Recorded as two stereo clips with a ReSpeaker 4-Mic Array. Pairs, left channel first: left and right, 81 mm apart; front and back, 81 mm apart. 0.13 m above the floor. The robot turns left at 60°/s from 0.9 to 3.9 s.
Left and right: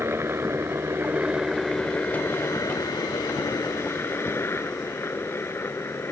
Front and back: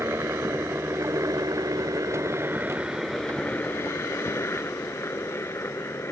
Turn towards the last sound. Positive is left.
turn(degrees=45)